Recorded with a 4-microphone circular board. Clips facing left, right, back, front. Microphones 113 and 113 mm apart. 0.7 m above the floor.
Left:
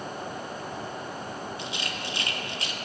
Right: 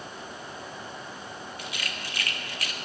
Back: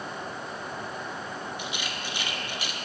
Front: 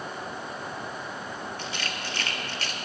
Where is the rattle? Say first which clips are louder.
Left 3 dB, even; 120° left, 0.9 m.